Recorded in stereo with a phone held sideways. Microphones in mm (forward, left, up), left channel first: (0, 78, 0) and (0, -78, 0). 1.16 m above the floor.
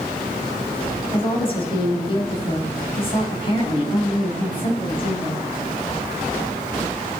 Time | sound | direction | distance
1.1 | a woman speaking | 35° left (ahead or behind) | 6.5 m